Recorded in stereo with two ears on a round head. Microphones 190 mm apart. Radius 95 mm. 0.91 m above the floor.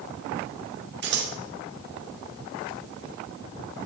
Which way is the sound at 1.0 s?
55° right (ahead or behind).